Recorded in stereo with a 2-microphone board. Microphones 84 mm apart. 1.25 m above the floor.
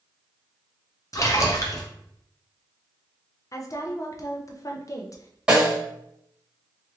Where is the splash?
40° left (ahead or behind), 0.6 m.